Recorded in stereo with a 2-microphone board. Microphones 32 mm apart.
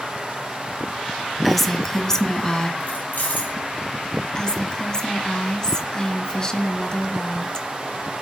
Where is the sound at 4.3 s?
25° left (ahead or behind), 1.2 m.